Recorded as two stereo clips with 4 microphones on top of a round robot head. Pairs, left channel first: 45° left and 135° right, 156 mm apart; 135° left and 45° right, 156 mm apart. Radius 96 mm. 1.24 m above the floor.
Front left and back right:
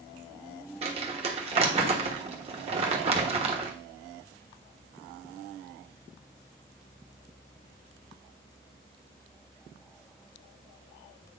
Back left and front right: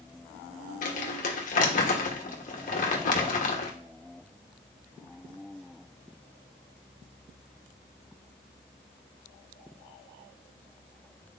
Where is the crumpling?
175° left, 1.2 m.